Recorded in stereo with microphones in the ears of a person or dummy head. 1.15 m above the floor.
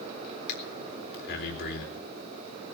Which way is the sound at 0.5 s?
65° left (ahead or behind).